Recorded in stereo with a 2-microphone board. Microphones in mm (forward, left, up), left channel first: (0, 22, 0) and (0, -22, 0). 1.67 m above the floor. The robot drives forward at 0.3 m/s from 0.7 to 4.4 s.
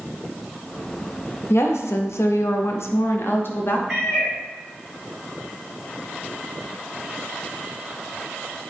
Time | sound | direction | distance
1.5 | a woman speaking | 70° left (ahead or behind) | 0.6 m
3.9 | a cat meowing | 10° right (ahead or behind) | 2.5 m